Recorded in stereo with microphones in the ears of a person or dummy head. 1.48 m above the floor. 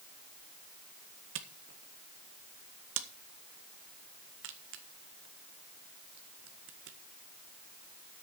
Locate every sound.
1.4 s a camera shutter: 70° right (ahead or behind), 1.5 m